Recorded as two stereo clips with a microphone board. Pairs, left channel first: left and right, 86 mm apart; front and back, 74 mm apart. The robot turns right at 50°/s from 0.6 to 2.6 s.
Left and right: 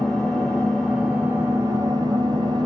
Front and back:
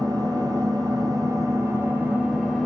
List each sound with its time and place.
0.0 s an engine running: 165° left, 2.5 m; by 2.7 s 95° right, 2.5 m